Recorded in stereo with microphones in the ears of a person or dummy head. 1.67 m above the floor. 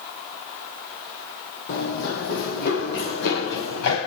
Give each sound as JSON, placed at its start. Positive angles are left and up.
{"t": 1.7, "sound": "running footsteps", "side_deg": 45, "distance_m": 2.5}